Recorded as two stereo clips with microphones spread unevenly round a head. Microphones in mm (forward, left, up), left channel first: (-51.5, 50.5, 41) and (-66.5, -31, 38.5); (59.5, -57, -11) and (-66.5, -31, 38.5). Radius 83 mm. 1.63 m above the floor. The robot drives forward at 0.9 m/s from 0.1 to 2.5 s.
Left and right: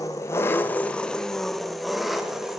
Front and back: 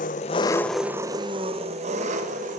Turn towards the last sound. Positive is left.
turn(degrees=170)